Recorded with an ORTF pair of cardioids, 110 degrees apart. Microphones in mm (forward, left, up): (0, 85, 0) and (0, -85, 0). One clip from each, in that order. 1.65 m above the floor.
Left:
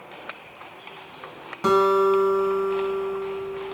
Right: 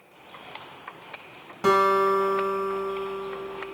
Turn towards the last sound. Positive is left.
turn(degrees=-5)